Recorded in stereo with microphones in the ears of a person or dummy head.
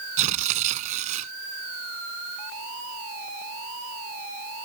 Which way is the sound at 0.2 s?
45° right (ahead or behind).